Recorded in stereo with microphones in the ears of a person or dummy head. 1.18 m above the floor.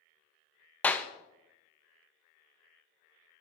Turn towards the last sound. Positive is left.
turn(degrees=5)  # may be behind; listen again after turning